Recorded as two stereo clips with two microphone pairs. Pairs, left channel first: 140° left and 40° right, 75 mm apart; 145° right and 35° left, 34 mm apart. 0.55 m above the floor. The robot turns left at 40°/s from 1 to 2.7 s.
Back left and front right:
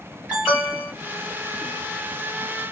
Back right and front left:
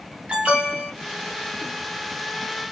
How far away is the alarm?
About 2 m.